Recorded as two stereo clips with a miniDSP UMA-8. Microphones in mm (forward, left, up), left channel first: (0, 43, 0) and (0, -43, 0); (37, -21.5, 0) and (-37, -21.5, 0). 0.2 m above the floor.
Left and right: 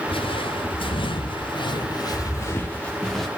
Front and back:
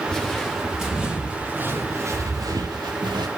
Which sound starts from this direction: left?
Footsteps, at 0.1 s.